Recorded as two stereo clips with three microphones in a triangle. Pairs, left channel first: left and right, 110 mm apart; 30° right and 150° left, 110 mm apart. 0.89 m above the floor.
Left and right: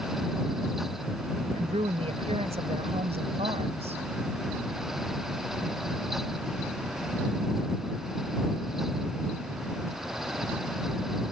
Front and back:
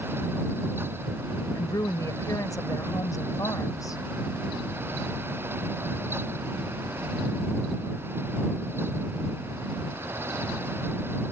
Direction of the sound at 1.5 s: 85° right.